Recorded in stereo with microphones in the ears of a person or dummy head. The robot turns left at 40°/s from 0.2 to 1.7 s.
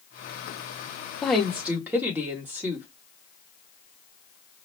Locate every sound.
1.2 s a woman speaking: 5° left (ahead or behind), 0.8 m; by 2.9 s 10° right (ahead or behind), 0.8 m